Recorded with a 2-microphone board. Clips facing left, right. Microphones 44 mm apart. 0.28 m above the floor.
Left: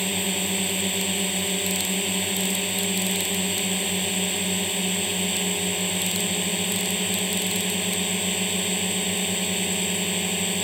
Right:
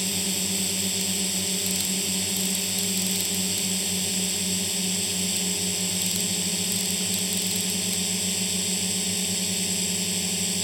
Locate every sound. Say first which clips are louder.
0.0 s a drone: left 4 dB; 30° left (ahead or behind)